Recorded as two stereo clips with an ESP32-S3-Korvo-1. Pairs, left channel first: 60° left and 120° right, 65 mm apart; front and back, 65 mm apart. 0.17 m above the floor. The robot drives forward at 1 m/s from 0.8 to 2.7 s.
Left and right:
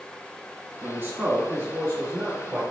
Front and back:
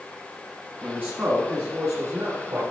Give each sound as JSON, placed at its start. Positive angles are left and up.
{"t": 0.8, "sound": "a man speaking", "azimuth_deg": -135, "distance_m": 1.1}